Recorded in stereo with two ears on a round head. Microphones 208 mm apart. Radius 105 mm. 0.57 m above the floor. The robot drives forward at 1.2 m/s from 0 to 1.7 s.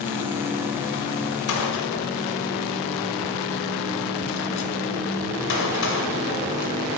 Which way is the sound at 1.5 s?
70° left (ahead or behind).